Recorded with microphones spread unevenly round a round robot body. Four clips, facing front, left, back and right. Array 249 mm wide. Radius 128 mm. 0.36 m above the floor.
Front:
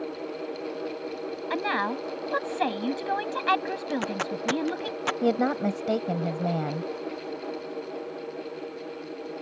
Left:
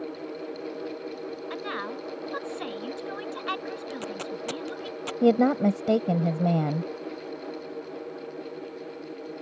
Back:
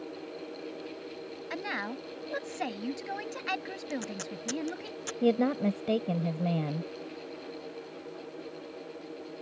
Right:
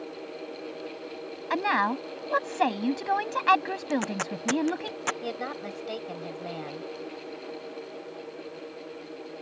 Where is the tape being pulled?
30° right.